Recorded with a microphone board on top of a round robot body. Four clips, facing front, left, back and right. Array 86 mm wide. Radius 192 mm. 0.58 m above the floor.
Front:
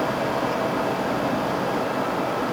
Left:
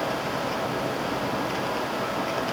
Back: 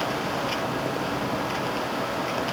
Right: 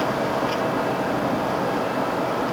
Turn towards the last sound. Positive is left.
No sound to turn to.